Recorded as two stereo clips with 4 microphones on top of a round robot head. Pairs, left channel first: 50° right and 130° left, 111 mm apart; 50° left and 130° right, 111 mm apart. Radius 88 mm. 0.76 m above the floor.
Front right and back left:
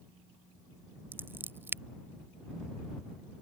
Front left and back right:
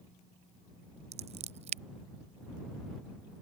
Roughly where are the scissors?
Behind.